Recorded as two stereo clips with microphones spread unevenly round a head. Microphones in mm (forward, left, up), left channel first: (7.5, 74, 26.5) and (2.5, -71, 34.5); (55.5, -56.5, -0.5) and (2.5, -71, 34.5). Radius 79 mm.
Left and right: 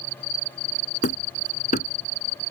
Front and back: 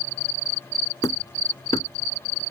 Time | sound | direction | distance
1.0 | hammering | 50° left | ?